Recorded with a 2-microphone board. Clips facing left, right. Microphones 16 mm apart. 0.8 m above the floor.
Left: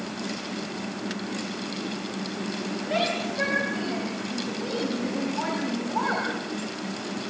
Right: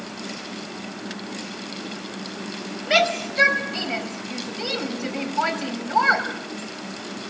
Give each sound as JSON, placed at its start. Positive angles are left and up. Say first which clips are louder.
{"t": 2.9, "sound": "a shout", "louder": "right 7 dB", "side_deg": -70, "distance_m": 5.5}